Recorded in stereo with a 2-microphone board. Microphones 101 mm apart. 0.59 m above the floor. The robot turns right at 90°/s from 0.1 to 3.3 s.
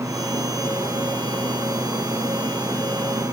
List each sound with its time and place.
Only background noise.